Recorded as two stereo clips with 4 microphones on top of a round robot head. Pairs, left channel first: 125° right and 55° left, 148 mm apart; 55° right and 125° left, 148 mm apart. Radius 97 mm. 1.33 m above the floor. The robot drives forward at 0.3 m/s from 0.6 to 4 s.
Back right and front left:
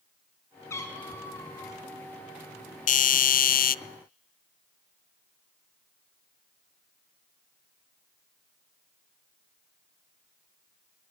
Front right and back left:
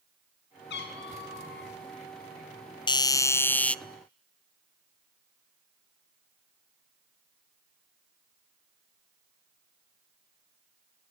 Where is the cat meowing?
55° right, 4.5 m.